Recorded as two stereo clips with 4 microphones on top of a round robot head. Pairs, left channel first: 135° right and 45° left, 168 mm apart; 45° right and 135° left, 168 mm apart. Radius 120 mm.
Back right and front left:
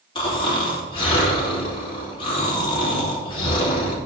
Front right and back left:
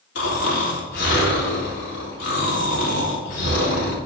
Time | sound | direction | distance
0.1 | snoring | 70° right | 3 m